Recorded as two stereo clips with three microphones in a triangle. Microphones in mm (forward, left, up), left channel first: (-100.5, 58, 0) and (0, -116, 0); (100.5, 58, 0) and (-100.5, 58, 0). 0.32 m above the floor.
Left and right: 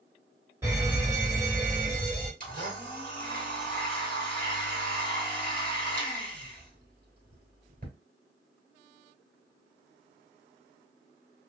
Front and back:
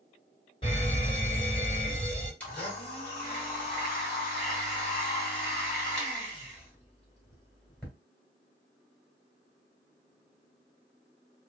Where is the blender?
80° right, 1.9 m.